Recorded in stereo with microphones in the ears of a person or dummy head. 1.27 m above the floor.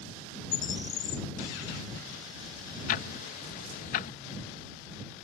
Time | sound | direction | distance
0.5 | a bird | 50° left (ahead or behind) | ?
2.9 | ticking | 50° left (ahead or behind) | ?